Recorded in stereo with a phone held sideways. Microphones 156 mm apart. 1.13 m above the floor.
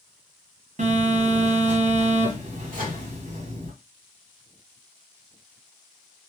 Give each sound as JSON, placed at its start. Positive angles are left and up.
{"t": 0.8, "sound": "a phone buzzing", "side_deg": -55, "distance_m": 1.0}
{"t": 2.7, "sound": "a microwave", "side_deg": -70, "distance_m": 1.1}